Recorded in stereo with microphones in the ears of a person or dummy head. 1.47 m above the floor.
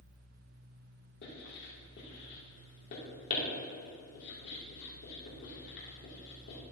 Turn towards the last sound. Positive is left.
turn(degrees=65)  # may be behind; listen again after turning